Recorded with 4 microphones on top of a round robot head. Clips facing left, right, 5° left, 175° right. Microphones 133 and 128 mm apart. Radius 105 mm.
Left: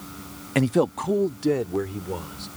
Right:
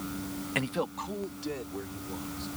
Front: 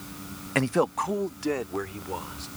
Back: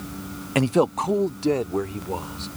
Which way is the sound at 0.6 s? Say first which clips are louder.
Left 12 dB, back 4 dB; 120° left.